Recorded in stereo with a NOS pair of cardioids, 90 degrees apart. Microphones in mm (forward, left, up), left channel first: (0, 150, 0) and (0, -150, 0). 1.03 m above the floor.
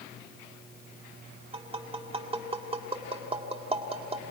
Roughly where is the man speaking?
No man speaking in this recording.